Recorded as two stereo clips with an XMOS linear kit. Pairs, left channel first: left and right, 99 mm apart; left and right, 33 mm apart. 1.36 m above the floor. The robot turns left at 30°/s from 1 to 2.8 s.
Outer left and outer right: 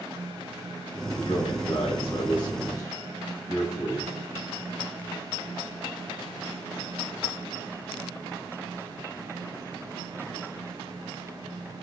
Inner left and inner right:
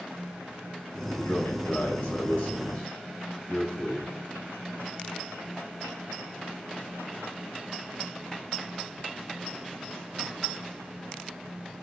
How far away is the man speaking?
About 3.5 m.